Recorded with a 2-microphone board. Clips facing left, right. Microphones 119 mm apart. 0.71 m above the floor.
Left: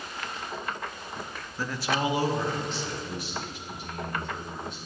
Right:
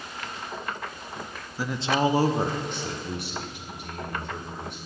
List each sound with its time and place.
1.6 s a man speaking: 10° right (ahead or behind), 0.6 m; by 4.8 s 70° right (ahead or behind), 2.5 m